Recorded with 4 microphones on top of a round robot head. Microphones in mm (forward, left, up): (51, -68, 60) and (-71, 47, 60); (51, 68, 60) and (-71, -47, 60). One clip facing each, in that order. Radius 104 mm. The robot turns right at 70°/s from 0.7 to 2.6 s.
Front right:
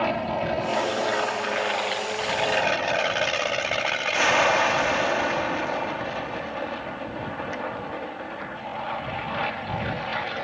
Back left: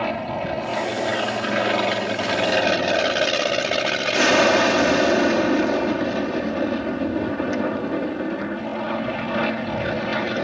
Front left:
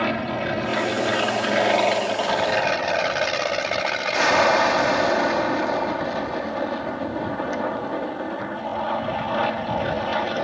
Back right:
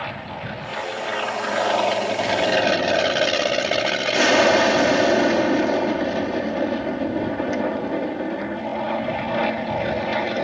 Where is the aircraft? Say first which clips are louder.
Even, front left 8 dB; 50° left; by 10.4 s 150° left.